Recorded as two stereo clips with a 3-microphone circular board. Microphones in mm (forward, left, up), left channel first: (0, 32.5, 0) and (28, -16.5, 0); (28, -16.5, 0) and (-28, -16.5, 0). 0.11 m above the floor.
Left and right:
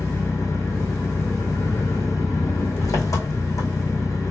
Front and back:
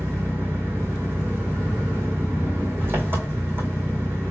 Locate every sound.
0.0 s an engine running: 130° left, 2 m